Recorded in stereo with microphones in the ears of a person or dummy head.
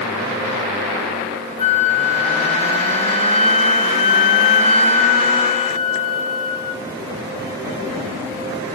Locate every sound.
1.6 s a flute: 30° left (ahead or behind), 1.7 m